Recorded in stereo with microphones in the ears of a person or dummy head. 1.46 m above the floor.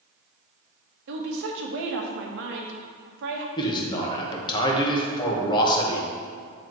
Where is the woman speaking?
65° right (ahead or behind), 1.2 m.